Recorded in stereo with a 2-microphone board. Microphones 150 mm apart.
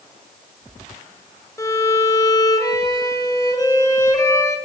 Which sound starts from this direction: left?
A violin, at 1.6 s.